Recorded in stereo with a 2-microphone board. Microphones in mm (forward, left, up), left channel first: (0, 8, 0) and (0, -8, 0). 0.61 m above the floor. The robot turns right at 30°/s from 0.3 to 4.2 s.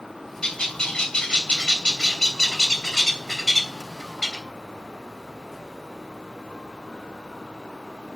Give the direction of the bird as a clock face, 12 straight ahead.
10 o'clock.